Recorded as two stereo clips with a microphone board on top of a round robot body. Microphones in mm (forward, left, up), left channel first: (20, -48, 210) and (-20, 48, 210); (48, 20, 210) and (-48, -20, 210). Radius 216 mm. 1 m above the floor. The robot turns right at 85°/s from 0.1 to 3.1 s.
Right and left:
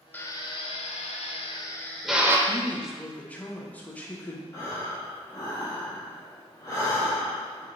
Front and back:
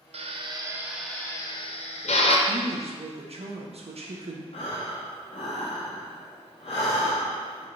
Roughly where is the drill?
Behind right.